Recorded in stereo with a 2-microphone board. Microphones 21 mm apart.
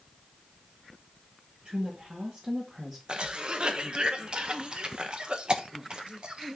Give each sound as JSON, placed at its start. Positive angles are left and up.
{"t": 1.6, "sound": "a woman speaking", "side_deg": -55, "distance_m": 2.5}
{"t": 3.1, "sound": "a cough", "side_deg": -45, "distance_m": 1.1}